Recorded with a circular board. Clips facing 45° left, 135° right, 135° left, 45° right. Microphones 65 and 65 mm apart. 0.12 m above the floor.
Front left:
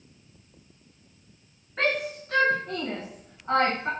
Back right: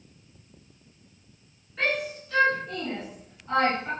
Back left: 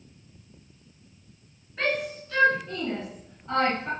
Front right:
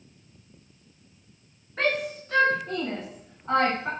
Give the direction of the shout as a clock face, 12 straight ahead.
12 o'clock.